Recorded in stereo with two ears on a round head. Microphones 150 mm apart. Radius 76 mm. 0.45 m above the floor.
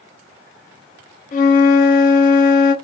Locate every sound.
1.3 s a flute: 45° left (ahead or behind), 1.7 m